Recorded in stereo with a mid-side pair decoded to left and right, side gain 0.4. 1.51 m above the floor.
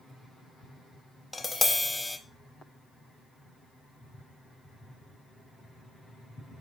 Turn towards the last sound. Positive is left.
turn(degrees=20)